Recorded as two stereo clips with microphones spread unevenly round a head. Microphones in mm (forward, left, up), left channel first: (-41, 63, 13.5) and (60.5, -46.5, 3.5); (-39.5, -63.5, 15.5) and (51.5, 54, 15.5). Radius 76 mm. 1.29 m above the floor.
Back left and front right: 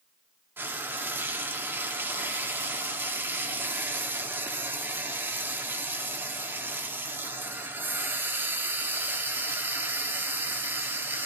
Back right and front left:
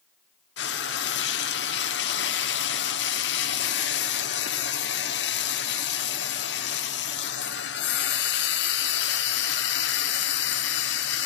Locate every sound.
0.6 s frying: 125° right, 1.7 m